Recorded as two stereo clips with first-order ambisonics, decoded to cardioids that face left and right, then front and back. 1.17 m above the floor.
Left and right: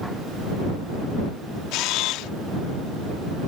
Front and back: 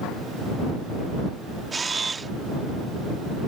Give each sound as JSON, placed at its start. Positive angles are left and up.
{"t": 1.7, "sound": "a camera shutter", "azimuth_deg": 105}